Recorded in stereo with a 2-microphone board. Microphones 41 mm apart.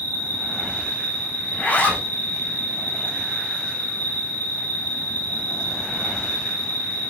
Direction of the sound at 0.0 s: 50° left (ahead or behind).